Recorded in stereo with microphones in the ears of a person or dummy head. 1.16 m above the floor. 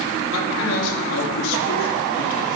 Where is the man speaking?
70° left (ahead or behind), 2.5 m.